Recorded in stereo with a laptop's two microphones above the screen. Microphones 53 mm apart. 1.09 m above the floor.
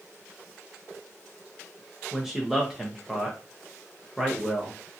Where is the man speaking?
5° right (ahead or behind), 0.7 m.